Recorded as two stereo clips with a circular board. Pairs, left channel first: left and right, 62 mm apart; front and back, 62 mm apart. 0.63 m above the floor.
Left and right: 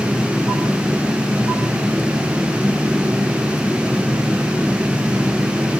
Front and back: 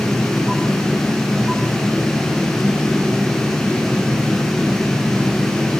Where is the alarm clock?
No alarm clock in this recording.